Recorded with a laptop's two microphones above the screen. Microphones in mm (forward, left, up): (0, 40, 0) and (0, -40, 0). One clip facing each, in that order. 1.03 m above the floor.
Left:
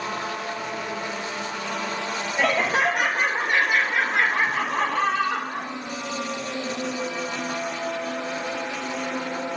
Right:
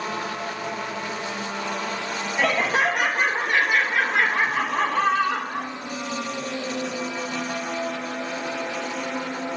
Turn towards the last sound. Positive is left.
turn(degrees=15)  # may be behind; listen again after turning